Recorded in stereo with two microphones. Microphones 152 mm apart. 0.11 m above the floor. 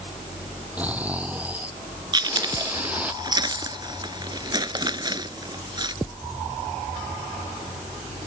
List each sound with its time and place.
0.8 s snoring: 10° right (ahead or behind)
2.1 s chewing: 30° right (ahead or behind)